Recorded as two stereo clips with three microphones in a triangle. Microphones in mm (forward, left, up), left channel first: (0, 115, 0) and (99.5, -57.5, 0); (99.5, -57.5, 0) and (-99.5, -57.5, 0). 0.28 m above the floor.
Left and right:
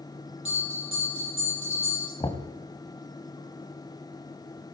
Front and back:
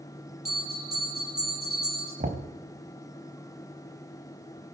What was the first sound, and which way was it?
A bell, 140° left.